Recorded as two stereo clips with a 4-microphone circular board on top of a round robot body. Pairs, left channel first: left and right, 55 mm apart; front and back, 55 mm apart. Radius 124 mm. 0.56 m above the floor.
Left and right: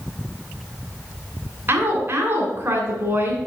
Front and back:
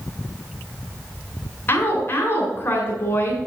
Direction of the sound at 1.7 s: 50° right.